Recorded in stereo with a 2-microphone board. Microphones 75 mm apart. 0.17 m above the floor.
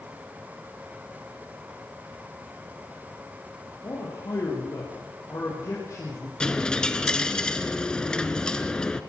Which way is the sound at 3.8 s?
45° left (ahead or behind).